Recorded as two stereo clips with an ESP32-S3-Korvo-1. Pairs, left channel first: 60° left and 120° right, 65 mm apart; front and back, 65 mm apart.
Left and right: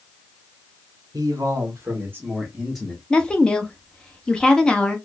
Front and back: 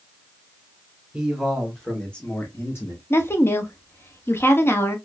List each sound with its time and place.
1.1 s a man speaking: 100° right, 1.8 m; by 3.0 s 15° right, 1.2 m
3.1 s a woman speaking: 5° right, 0.7 m